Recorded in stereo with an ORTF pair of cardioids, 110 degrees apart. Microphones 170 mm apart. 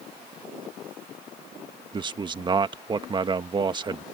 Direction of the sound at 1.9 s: 30° right.